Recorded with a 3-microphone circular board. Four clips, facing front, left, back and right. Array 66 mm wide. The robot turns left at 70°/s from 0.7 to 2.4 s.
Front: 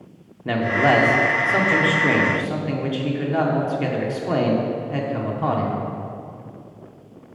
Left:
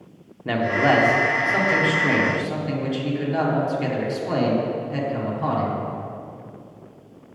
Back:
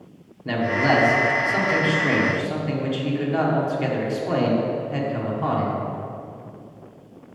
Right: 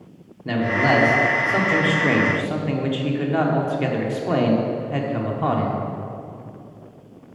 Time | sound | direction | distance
0.5 | a man speaking | 45° left | 0.8 m